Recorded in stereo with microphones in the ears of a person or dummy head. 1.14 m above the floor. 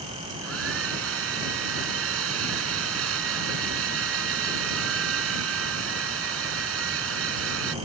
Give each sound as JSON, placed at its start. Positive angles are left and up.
{"t": 0.3, "sound": "a hair dryer", "side_deg": -85}